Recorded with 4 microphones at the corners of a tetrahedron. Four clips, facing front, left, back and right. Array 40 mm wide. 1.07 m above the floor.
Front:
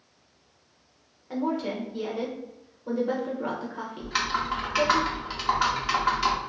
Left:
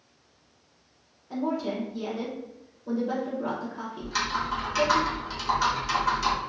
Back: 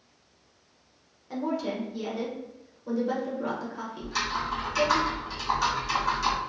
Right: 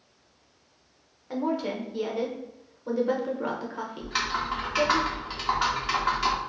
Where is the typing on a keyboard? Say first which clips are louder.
Even, front 3 dB; 30° right, 0.9 m.